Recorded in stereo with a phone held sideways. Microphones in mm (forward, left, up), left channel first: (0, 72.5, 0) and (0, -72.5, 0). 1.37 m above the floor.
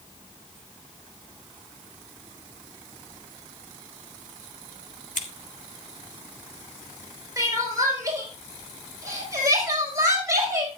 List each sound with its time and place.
5.2 s scissors: 65° left (ahead or behind), 2 m
7.4 s crying: 25° right (ahead or behind), 4.5 m